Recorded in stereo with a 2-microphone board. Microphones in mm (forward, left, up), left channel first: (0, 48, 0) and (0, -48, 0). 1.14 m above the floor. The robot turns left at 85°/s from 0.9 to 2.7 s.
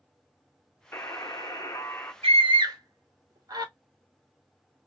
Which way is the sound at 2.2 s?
80° right.